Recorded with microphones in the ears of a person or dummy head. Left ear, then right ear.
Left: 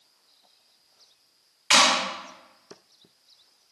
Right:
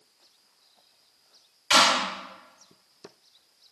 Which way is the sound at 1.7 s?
40° left (ahead or behind).